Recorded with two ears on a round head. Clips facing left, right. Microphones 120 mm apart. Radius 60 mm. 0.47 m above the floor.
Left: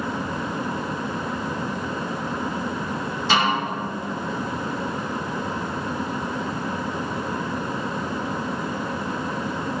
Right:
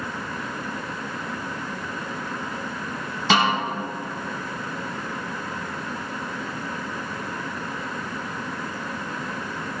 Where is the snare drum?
55° right (ahead or behind), 4.5 m.